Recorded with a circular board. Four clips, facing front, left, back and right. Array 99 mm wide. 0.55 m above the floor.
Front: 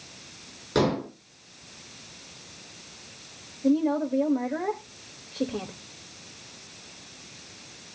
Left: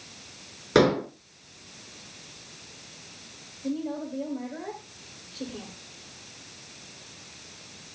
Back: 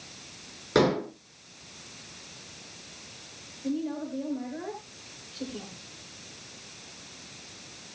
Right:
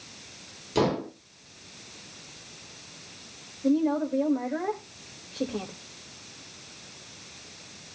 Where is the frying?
No frying in this recording.